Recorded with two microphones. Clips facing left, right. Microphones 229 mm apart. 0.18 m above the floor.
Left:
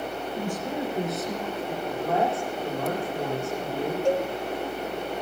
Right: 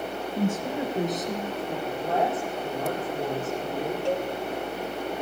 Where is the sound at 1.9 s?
5° right (ahead or behind), 8 m.